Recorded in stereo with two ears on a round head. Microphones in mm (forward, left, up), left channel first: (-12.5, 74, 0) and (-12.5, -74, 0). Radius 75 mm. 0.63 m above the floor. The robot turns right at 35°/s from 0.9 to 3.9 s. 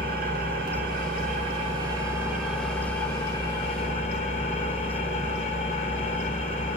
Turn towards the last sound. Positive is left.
turn(degrees=45)